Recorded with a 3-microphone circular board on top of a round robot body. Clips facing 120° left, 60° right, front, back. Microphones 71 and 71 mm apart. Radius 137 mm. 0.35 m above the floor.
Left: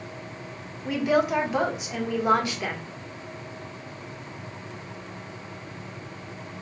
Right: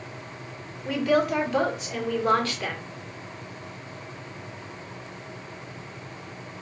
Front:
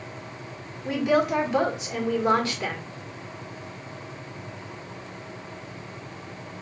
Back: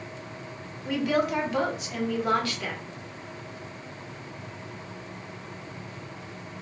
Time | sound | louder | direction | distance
0.8 | a woman speaking | even, front 3 dB | 55° left | 1.5 m